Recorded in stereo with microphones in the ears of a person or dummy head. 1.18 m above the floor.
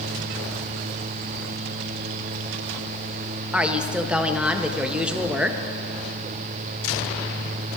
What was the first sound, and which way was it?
A woman speaking, 5° right (ahead or behind).